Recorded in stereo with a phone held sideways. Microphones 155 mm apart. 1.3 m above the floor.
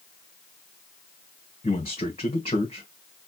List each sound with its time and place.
1.6 s a man speaking: 40° left (ahead or behind), 1.6 m